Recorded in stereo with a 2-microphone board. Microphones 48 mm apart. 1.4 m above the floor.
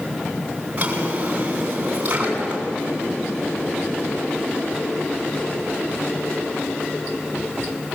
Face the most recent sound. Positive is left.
turn(degrees=-30)  # may be behind; listen again after turning